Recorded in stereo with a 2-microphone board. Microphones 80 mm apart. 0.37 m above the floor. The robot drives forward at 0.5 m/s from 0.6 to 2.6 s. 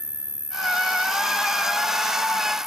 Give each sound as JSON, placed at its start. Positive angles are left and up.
{"t": 0.0, "sound": "an insect", "side_deg": 75}